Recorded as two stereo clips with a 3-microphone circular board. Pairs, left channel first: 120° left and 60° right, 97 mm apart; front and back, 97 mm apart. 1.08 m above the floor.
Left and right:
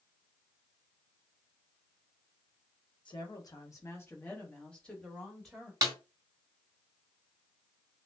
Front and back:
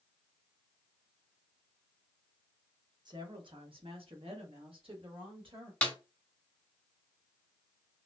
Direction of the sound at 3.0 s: 145° left.